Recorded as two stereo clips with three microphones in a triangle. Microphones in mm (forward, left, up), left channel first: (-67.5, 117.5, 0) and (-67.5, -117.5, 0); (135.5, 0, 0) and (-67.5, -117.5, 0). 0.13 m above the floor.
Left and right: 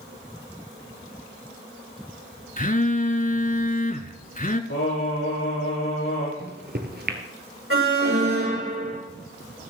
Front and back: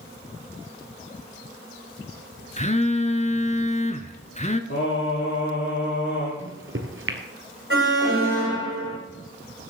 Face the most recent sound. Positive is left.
turn(degrees=-120)